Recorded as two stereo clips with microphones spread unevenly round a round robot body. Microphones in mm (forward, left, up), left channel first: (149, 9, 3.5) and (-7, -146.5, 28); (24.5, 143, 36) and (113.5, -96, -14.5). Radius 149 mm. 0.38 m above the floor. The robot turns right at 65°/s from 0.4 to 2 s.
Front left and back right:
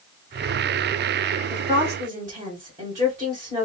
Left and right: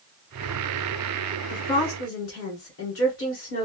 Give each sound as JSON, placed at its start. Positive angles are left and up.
{"t": 1.5, "sound": "a woman speaking", "azimuth_deg": 115, "distance_m": 1.8}